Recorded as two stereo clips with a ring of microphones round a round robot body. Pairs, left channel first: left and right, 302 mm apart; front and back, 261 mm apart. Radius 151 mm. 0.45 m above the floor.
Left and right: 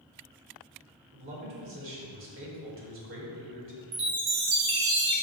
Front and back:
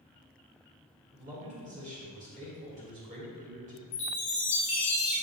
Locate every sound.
1.1 s a man speaking: 125° right, 2 m
3.9 s a chime: 70° right, 1.9 m